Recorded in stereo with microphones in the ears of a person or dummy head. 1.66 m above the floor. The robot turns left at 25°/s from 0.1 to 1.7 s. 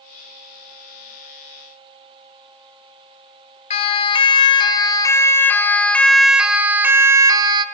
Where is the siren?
35° left (ahead or behind), 2 m; by 7.7 s 25° right (ahead or behind), 1.7 m.